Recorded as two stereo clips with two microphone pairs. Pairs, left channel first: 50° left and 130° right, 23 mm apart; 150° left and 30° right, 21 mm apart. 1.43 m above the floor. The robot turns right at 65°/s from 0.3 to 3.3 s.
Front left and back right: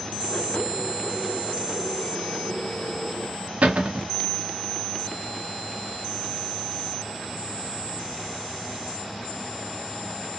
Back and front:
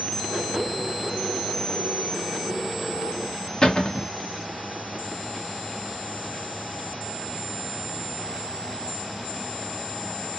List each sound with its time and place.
3.6 s a cupboard door: 150° right, 0.6 m